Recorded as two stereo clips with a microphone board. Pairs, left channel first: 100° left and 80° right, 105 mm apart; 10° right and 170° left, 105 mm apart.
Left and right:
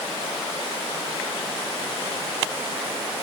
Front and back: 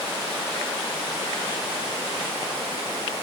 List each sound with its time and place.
Only background noise.